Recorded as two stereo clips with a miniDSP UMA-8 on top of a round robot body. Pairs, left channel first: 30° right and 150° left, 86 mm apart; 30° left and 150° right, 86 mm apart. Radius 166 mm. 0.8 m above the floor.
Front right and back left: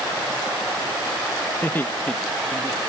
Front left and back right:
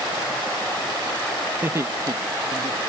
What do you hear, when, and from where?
1.6 s laughter: 90° right; by 2.8 s 110° right